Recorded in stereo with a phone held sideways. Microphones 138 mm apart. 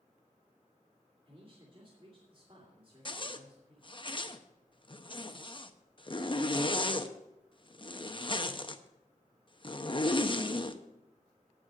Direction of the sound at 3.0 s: 35° left (ahead or behind).